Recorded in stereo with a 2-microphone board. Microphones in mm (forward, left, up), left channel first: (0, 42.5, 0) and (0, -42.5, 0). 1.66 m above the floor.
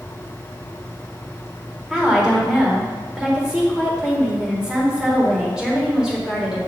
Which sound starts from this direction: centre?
A woman speaking, at 1.9 s.